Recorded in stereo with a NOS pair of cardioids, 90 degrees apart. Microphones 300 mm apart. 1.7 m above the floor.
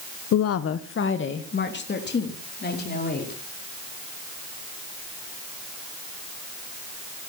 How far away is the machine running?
I don't hear a machine running.